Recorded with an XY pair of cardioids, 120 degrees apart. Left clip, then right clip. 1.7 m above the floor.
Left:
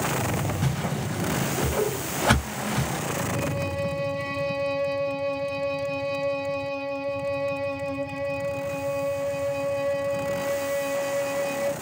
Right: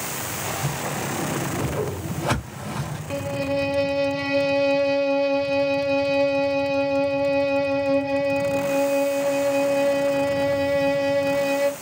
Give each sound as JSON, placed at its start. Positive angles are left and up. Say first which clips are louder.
{"t": 0.6, "sound": "a whoosh", "louder": "right 3 dB", "azimuth_deg": 40, "distance_m": 1.1}
{"t": 3.1, "sound": "a violin", "louder": "right 8 dB", "azimuth_deg": -55, "distance_m": 0.5}